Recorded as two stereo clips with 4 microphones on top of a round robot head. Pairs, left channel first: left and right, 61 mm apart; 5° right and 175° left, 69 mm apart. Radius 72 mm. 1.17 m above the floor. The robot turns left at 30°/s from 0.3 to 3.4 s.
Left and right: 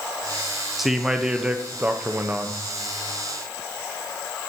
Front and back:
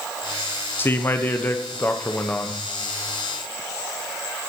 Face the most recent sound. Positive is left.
turn(degrees=-90)